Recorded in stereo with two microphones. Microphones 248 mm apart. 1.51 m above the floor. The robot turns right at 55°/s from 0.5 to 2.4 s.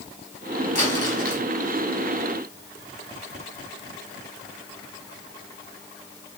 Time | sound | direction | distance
0.8 | crumpling | 95° left | 5.5 m